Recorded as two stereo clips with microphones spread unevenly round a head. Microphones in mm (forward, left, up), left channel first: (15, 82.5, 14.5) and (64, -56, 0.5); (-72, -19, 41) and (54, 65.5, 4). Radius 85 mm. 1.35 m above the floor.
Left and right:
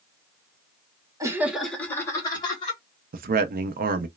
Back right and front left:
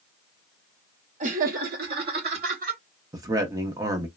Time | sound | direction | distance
1.2 | laughter | 5° right | 1.1 m
3.1 | a man speaking | 40° right | 0.6 m